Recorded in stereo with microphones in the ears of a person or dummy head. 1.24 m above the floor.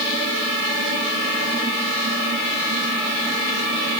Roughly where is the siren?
I don't hear a siren.